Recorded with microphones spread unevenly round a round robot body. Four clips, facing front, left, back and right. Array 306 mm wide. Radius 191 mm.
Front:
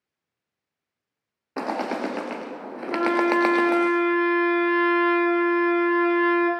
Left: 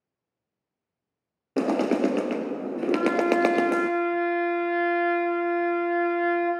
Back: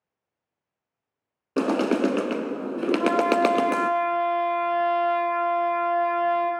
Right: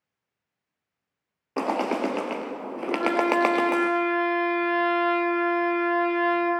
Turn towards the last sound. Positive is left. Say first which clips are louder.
# even, front 1 dB
turn(degrees=20)